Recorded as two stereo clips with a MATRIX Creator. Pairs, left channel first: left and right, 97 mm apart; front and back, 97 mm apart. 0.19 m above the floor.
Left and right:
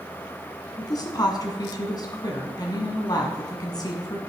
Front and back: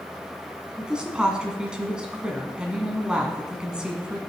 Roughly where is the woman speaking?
Left.